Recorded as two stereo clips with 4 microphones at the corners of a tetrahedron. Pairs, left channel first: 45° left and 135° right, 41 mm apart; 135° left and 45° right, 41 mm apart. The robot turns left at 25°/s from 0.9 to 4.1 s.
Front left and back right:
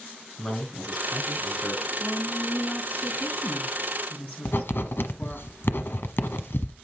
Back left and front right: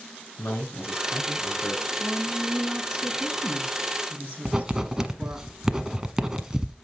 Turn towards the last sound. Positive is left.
turn(degrees=30)